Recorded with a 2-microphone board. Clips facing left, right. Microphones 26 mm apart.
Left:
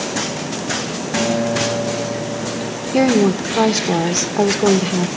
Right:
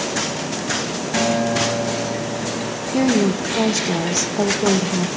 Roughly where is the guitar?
Centre.